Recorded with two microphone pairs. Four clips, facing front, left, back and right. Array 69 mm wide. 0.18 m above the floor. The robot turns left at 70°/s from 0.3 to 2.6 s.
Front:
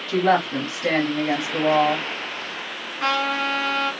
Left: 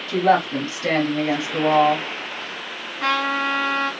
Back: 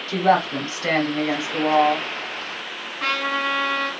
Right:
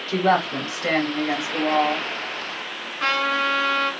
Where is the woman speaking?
150° right, 1.1 m; by 2.0 s 85° left, 1.1 m.